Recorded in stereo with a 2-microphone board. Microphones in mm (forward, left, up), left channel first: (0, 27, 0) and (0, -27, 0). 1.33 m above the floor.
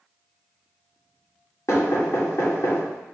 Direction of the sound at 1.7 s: 60° left (ahead or behind).